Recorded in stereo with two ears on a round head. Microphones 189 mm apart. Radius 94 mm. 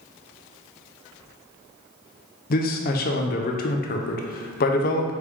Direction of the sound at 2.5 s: 45° left (ahead or behind).